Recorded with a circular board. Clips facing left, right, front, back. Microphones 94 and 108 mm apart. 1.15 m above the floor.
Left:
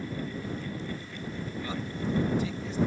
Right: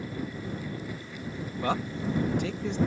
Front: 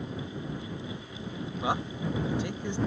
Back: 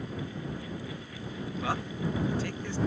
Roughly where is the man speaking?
Right.